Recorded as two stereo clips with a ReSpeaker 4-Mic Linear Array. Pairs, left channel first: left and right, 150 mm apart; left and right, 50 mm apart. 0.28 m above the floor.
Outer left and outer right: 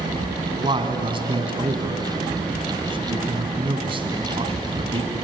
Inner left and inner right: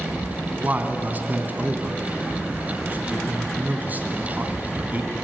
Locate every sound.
0.6 s a man speaking: 35° right (ahead or behind), 2 m